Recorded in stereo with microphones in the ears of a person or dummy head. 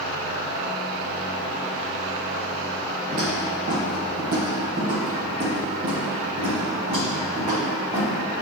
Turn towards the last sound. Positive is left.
turn(degrees=-20)  # may be behind; listen again after turning